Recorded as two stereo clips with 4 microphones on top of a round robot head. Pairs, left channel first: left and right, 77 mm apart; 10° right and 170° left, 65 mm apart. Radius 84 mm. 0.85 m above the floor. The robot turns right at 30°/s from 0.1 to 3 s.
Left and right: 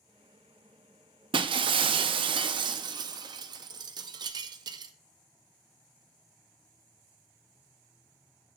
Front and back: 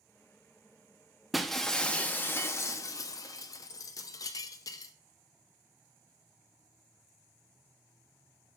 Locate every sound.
1.3 s breaking glass: 100° right, 0.5 m; by 4.9 s 50° right, 0.5 m